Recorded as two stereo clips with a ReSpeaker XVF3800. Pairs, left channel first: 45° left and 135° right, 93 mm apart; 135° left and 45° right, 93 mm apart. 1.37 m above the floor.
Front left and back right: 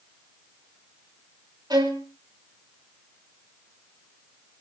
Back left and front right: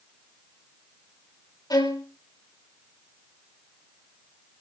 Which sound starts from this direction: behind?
A violin, at 1.7 s.